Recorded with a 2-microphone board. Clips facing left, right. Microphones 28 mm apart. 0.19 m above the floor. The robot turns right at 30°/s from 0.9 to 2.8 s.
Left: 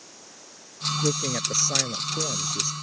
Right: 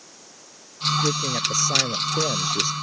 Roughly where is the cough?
I don't hear a cough.